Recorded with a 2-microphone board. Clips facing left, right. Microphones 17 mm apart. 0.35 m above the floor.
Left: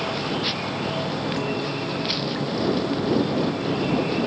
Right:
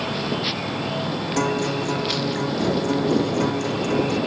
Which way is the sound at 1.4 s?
85° right.